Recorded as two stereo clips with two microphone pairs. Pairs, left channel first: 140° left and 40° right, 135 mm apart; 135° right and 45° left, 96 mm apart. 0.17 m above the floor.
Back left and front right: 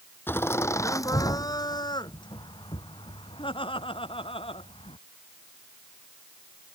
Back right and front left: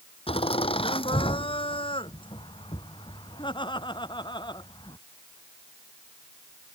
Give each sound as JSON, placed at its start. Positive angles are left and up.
{"t": 0.3, "sound": "laughter", "azimuth_deg": -150}